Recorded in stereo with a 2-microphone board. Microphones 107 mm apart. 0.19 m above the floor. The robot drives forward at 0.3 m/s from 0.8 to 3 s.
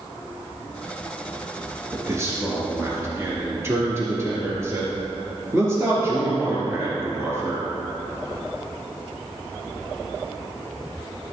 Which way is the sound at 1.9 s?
30° right (ahead or behind).